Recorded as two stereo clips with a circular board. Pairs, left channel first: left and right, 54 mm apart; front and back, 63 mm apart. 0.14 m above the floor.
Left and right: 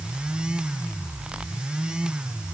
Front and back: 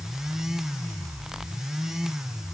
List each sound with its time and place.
Only background noise.